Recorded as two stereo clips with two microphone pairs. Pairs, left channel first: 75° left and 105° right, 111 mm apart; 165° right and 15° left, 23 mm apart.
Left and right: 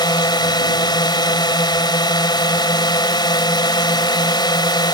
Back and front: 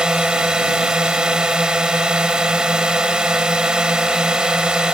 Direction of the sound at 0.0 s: 40° left.